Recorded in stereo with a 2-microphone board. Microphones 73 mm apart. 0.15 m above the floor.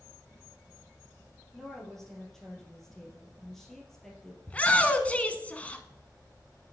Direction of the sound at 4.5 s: 20° left (ahead or behind).